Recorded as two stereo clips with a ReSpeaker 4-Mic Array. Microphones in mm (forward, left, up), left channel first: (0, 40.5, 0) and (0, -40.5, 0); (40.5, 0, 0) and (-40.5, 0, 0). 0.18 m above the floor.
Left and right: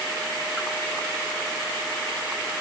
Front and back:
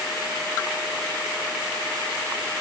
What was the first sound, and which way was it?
Only background noise.